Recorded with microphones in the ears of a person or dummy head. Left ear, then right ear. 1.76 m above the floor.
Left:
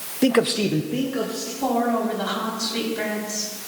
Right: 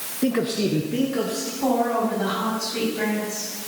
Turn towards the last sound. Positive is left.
turn(degrees=25)  # may be behind; listen again after turning